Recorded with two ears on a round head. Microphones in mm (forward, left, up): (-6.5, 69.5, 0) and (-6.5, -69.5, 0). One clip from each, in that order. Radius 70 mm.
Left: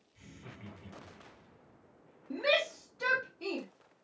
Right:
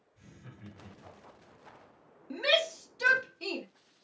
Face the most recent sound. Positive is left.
turn(degrees=-60)  # may be behind; listen again after turning